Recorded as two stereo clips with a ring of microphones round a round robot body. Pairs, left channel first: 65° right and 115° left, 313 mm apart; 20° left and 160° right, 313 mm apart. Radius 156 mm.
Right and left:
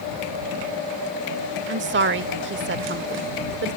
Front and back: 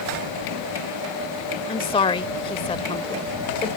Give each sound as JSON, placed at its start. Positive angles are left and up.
{"t": 1.7, "sound": "a woman speaking", "azimuth_deg": 85}